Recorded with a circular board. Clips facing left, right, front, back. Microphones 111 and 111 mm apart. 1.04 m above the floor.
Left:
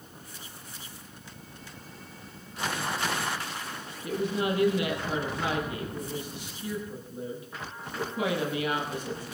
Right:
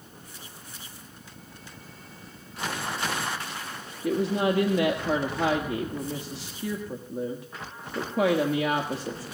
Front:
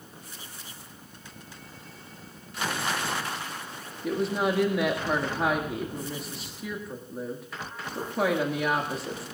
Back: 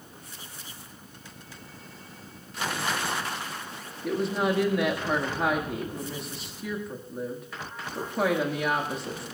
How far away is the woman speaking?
About 1.6 m.